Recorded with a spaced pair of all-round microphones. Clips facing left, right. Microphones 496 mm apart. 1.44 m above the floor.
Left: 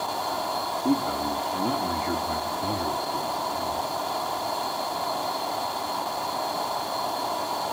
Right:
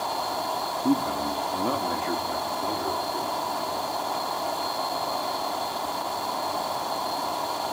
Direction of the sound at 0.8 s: 15° right (ahead or behind).